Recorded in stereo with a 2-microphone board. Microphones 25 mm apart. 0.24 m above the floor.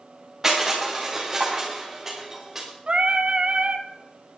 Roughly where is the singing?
Right.